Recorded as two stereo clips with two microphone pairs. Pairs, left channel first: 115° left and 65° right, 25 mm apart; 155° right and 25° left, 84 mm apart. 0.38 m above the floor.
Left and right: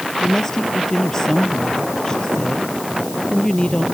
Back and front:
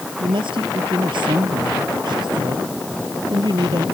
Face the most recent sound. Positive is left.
turn(degrees=55)